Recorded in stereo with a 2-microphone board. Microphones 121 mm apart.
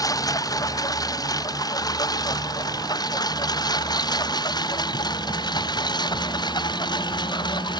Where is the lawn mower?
30° left (ahead or behind); by 7.8 s 35° left (ahead or behind).